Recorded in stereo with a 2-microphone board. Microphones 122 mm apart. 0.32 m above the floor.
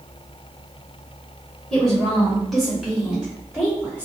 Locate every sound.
1.7 s a woman speaking: 5° left (ahead or behind), 1.1 m; by 4.1 s 10° right (ahead or behind), 1.4 m